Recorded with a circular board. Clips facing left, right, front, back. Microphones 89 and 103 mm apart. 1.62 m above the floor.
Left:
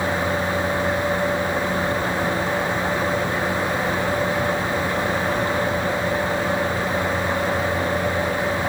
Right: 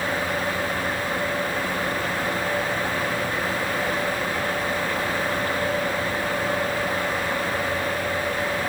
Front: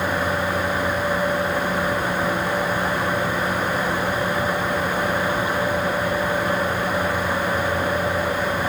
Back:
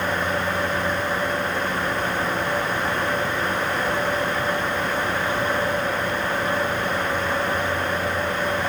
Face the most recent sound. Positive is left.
No sound to turn to.